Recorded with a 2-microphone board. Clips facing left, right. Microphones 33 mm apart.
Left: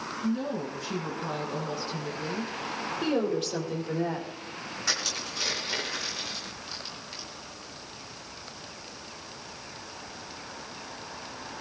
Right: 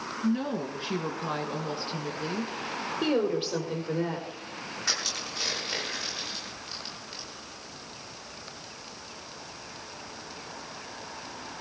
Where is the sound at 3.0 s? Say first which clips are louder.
Right 1 dB; 25° right (ahead or behind), 5 m.